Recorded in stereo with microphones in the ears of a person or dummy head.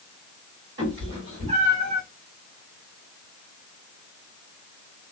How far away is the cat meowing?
About 1.4 m.